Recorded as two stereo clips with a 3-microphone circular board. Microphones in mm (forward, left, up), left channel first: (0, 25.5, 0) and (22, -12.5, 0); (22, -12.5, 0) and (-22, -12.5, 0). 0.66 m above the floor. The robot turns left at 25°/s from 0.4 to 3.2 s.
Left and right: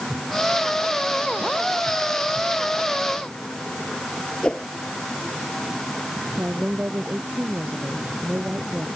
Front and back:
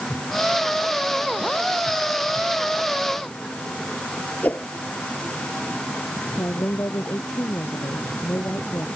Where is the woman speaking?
10° right.